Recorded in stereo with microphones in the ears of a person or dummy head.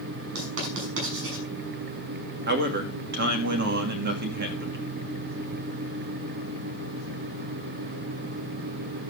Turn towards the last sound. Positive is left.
turn(degrees=-55)  # may be behind; listen again after turning